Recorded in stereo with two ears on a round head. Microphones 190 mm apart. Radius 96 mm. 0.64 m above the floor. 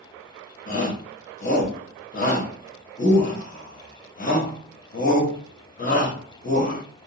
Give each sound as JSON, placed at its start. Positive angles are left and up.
{"t": 0.7, "sound": "a shout", "side_deg": 40, "distance_m": 0.9}